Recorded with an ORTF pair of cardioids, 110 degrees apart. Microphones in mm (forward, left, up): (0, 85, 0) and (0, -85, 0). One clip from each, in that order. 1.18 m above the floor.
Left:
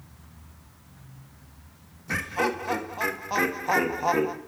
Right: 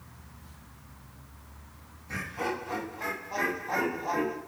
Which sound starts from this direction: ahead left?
Laughter, at 2.1 s.